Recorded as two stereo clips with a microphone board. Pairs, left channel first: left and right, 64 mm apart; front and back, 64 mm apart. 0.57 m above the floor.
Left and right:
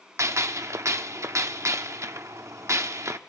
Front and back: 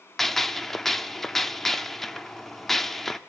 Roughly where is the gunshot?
Right.